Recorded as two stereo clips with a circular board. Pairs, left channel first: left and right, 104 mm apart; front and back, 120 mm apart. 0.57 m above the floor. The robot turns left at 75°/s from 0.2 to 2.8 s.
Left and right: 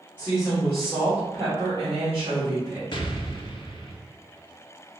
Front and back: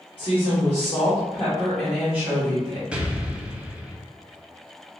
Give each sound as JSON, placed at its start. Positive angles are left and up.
{"t": 0.2, "sound": "a woman speaking", "azimuth_deg": 25, "distance_m": 1.3}
{"t": 2.9, "sound": "an explosion", "azimuth_deg": 105, "distance_m": 0.5}